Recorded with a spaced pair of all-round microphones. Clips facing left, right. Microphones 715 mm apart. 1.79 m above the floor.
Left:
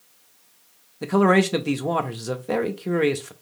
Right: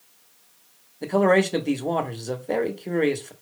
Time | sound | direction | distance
1.0 | a man speaking | 45° left (ahead or behind) | 0.5 m